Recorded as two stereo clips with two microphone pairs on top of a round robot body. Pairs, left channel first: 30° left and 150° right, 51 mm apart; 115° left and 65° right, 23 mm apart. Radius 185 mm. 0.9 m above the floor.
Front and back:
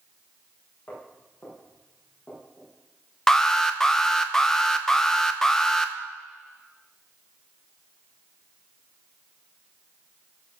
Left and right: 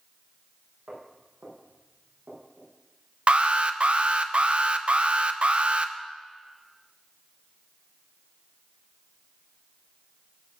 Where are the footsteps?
40° right, 8 m; by 2.7 s 45° right, 9 m.